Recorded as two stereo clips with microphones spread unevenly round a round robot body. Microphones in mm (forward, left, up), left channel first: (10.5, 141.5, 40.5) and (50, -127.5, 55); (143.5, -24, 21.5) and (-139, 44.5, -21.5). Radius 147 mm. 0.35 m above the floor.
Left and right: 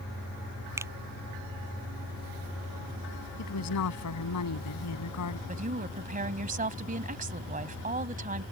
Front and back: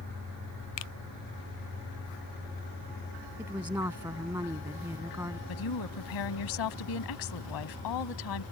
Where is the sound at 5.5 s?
20° right.